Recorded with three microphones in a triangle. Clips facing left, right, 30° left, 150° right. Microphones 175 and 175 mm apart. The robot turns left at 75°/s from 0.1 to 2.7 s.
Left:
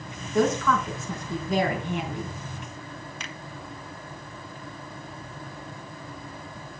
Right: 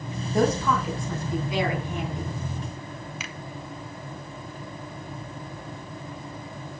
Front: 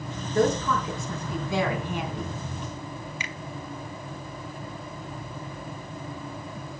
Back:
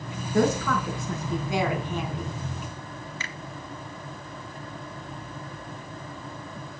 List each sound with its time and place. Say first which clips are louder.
0.3 s a woman speaking: even, even; 135° right, 4 m; by 2.3 s 75° left, 4 m
3.2 s a finger snap: right 1 dB, front 2 dB; 10° right, 1.0 m